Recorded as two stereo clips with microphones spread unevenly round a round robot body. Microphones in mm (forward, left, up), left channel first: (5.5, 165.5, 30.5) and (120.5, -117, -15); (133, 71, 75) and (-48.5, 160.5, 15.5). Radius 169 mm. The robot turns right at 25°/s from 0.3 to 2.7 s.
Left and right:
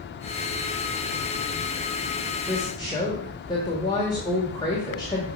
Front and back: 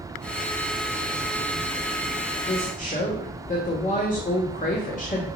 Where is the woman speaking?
25° left, 1.6 m; by 5.3 s 30° left, 1.6 m.